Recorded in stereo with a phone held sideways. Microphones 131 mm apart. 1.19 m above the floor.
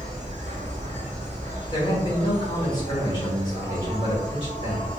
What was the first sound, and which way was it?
An insect, 70° right (ahead or behind).